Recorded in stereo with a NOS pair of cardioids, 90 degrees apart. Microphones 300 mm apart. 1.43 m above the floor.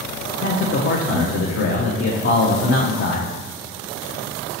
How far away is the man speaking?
About 0.7 m.